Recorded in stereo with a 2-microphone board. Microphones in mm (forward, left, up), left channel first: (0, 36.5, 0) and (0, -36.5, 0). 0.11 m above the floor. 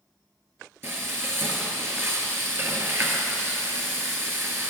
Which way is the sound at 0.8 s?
35° right (ahead or behind).